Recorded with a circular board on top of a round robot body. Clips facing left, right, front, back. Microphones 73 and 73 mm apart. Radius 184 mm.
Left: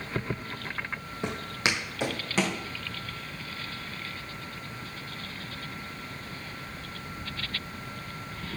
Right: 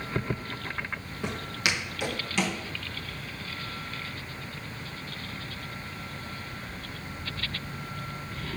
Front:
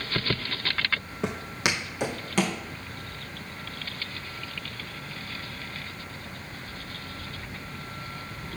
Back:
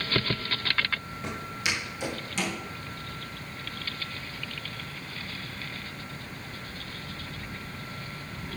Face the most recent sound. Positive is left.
turn(degrees=40)